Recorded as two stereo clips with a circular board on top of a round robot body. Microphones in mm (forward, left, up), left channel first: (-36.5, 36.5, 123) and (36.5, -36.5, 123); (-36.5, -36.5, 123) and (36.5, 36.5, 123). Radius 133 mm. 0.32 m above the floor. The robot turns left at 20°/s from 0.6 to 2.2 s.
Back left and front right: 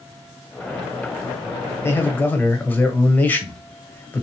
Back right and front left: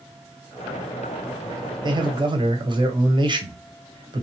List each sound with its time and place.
1.8 s a man speaking: 75° left, 1.2 m; by 4.2 s 65° left, 1.2 m